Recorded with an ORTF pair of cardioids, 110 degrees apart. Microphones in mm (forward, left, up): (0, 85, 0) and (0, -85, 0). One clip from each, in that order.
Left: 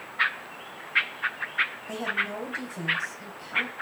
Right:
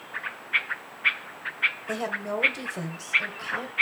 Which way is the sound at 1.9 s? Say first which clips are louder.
Left 1 dB; 40° right.